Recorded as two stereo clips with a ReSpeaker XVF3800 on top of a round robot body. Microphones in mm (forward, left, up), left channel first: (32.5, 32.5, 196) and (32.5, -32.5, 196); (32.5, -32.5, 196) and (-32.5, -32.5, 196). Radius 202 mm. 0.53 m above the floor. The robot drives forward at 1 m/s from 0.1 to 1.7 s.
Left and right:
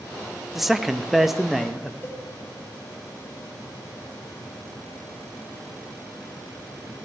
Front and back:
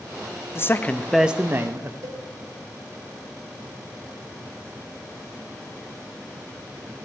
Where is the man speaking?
5° right, 1.0 m; by 1.9 s 175° right, 1.0 m.